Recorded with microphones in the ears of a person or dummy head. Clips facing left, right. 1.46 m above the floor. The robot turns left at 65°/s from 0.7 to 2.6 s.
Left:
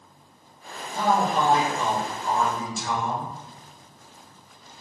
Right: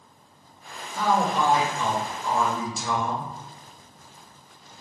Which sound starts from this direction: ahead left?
A man speaking, at 0.9 s.